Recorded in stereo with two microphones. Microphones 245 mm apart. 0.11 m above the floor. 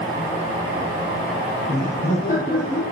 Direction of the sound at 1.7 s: 35° left (ahead or behind).